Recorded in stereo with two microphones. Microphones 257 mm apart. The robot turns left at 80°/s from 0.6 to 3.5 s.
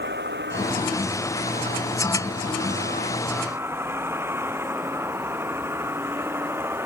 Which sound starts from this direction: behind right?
A vehicle, at 0.0 s.